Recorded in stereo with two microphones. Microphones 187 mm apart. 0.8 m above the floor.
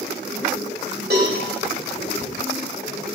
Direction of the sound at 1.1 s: 60° right (ahead or behind).